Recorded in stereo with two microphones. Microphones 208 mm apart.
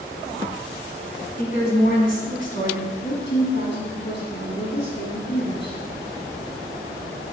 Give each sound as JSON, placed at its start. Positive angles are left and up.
{"t": 1.4, "sound": "a woman speaking", "side_deg": 45, "distance_m": 2.0}
{"t": 3.0, "sound": "a woman speaking", "side_deg": 60, "distance_m": 2.5}